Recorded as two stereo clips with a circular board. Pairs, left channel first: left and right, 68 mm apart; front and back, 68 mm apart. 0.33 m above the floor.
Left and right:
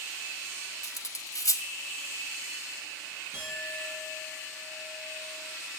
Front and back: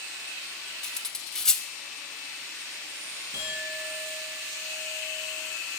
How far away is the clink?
About 5 m.